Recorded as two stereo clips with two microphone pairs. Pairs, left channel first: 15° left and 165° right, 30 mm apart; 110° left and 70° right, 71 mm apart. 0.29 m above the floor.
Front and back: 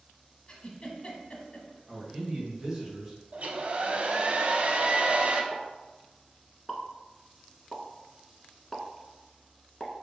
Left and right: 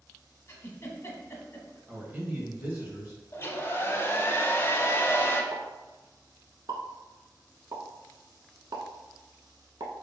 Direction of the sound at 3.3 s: 165° left.